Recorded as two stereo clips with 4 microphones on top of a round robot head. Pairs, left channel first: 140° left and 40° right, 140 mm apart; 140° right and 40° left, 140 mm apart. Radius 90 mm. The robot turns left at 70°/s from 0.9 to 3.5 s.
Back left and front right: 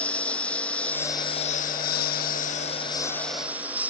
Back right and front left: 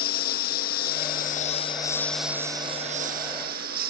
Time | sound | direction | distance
0.0 | a lawn mower | 140° right | ?